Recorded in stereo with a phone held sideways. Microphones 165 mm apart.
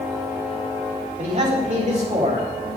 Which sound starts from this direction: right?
A man speaking, at 1.2 s.